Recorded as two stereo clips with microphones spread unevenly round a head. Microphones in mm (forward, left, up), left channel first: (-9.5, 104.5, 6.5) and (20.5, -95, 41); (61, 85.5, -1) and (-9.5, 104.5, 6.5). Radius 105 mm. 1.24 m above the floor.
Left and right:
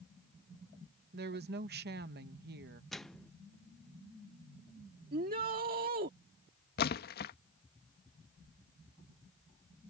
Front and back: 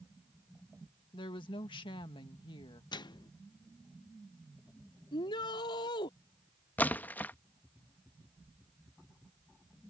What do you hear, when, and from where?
1.1 s a woman speaking: 40° right
2.9 s a microwave: 10° left
5.1 s a shout: 35° right
6.8 s a splash: 55° left